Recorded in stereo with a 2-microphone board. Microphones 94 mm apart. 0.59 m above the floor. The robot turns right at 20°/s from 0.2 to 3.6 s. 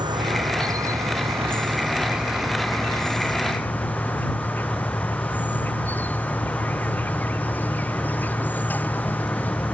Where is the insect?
50° right; by 9.7 s 20° left.